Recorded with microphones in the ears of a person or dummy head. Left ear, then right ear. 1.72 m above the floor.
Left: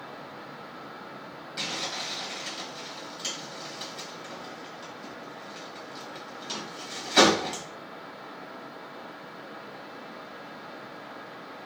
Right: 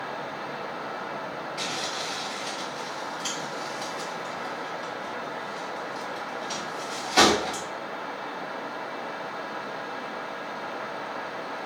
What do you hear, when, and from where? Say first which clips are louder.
1.6 s crumpling: even; 50° left (ahead or behind), 2 m